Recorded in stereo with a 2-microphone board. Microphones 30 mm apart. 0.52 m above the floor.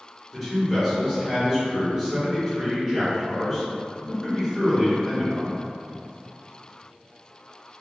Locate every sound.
0.3 s a man speaking: centre (ahead or behind), 1.9 m